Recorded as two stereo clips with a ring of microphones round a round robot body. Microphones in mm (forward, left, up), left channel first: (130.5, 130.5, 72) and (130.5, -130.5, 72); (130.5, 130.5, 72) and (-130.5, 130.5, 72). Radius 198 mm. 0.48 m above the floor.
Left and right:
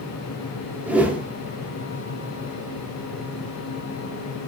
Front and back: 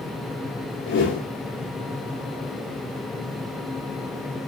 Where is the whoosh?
5° right, 0.5 m.